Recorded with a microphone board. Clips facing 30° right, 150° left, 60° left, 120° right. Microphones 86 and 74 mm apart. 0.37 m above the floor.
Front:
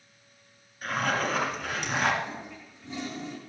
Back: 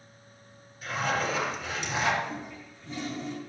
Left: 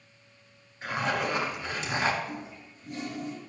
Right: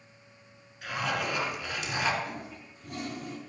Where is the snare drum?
I don't hear a snare drum.